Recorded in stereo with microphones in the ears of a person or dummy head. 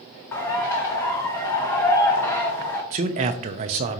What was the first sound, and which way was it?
A bird, 15° left (ahead or behind).